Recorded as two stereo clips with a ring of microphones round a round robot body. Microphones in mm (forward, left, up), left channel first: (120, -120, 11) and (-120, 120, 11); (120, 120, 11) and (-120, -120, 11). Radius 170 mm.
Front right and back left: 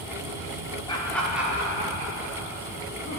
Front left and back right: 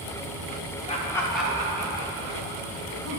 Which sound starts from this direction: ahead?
Laughter, at 0.9 s.